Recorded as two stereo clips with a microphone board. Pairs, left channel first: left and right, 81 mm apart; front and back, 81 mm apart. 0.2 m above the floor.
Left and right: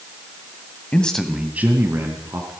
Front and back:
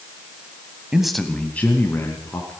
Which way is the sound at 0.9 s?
115° left.